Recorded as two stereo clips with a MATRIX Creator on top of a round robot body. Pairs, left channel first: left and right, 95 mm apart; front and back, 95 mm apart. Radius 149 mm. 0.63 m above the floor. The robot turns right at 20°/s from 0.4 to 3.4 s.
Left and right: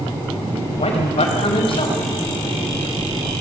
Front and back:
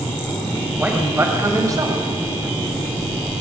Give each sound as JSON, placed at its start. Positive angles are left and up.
{"t": 0.8, "sound": "a man speaking", "azimuth_deg": 105, "distance_m": 4.5}